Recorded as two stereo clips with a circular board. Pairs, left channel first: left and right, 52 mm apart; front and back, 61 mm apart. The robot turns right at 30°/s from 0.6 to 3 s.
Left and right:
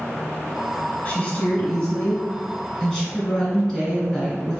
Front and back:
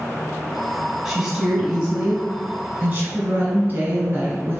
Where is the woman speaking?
105° left, 1.3 m; by 4.6 s 160° left, 1.3 m.